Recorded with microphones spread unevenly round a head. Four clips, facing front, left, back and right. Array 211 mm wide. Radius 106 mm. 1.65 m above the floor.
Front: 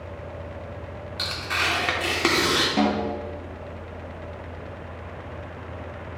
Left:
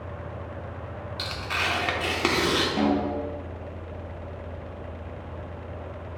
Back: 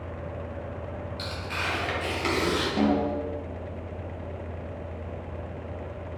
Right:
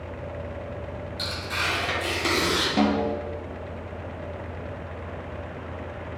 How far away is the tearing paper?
About 0.7 m.